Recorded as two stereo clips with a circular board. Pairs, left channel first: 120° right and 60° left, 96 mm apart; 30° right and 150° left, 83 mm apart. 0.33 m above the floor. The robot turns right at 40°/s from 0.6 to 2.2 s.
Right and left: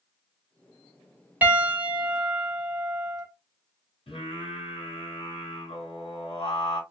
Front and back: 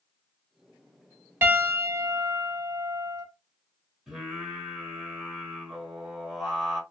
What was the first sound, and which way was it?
A piano, 115° left.